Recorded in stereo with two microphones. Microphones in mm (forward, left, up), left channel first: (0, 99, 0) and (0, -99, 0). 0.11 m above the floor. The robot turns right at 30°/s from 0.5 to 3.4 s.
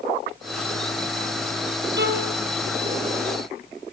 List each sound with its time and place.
2.0 s a violin: 60° right (ahead or behind), 3 m; by 2.3 s 55° right (ahead or behind), 3 m